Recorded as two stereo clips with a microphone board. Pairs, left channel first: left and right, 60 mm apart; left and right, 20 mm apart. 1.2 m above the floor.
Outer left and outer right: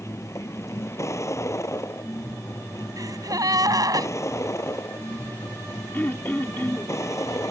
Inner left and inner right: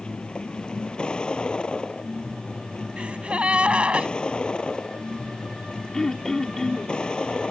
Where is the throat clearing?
35° left (ahead or behind).